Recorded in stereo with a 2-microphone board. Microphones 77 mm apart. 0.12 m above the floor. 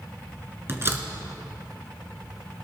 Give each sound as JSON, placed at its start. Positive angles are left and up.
{"t": 0.7, "sound": "a door slam", "side_deg": -35, "distance_m": 1.4}